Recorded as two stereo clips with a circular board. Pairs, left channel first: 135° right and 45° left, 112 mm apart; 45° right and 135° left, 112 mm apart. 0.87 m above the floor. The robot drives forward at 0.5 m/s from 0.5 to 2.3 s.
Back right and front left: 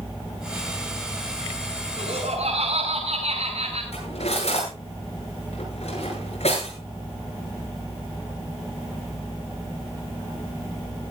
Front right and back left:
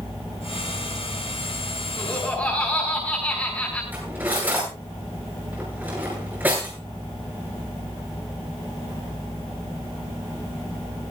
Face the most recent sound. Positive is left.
turn(degrees=-150)